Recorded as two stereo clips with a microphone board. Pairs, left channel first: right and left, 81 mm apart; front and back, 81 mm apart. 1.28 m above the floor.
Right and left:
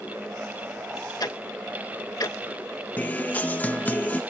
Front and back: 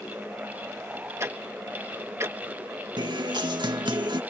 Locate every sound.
1.2 s ticking: 125° right
3.0 s a guitar: 160° right